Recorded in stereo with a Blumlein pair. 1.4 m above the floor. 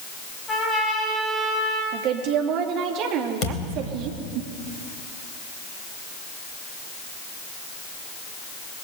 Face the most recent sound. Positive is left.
turn(degrees=30)